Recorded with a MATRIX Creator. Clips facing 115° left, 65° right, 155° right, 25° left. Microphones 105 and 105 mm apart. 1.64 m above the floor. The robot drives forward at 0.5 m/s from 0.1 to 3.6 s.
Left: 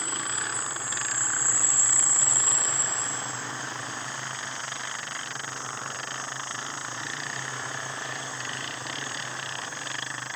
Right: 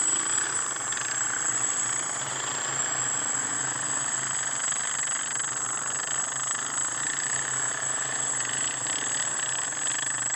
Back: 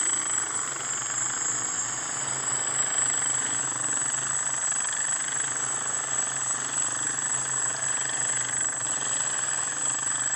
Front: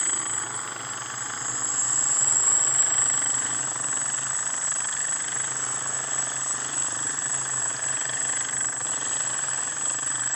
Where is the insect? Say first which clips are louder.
Even, front 1 dB; 105° right; by 10.4 s 145° right.